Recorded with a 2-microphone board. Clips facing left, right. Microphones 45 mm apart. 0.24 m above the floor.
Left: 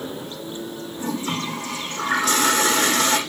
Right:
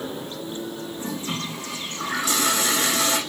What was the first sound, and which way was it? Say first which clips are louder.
A toilet flushing: left 5 dB; 70° left (ahead or behind).